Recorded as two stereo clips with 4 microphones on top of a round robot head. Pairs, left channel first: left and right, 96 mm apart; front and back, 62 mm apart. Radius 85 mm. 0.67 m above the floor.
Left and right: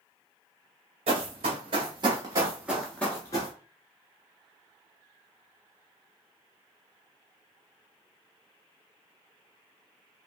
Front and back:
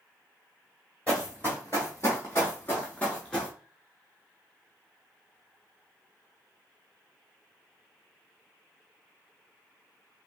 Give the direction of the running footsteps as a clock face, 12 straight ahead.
2 o'clock.